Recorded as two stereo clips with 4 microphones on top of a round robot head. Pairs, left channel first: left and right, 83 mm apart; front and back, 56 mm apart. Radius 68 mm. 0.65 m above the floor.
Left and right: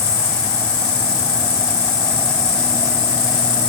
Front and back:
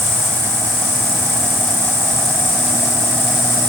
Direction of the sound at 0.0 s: 40° left.